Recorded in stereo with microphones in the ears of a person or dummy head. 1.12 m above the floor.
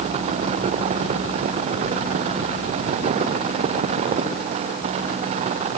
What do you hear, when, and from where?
Only background noise.